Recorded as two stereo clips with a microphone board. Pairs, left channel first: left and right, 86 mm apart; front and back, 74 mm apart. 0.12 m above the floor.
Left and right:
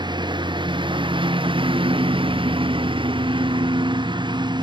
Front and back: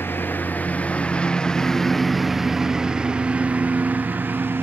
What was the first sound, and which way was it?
A lawn mower, 60° right.